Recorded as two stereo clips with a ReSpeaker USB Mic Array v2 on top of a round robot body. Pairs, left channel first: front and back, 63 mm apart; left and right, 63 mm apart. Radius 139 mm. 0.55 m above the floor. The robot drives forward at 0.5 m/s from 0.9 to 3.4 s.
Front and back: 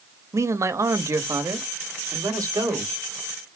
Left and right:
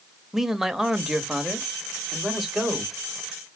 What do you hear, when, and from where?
0.3 s a man speaking: 175° right, 0.9 m